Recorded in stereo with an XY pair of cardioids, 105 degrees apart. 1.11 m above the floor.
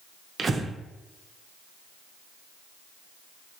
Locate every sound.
0.4 s breathing: 35° right, 0.6 m